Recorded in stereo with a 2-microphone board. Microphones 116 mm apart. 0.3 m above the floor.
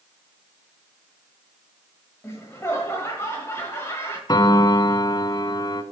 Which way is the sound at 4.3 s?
35° left (ahead or behind).